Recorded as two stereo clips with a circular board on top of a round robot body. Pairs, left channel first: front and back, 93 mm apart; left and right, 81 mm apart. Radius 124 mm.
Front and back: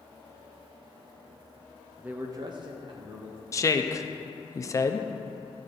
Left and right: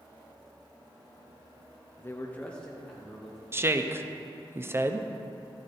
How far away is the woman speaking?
About 0.7 m.